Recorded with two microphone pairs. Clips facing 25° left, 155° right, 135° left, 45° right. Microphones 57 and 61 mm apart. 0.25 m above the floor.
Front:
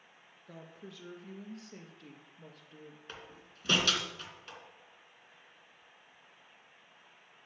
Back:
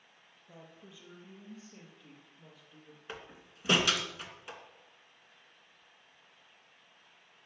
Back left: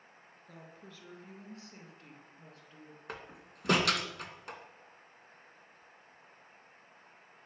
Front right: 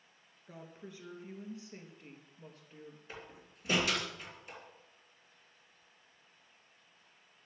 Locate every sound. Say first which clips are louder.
0.5 s a woman speaking: front 4 dB, front right 3 dB; 30° left, 3.5 m; by 3.0 s 20° left, 4.5 m
3.1 s a door slam: back 7 dB, back left 8 dB; 130° left, 2.5 m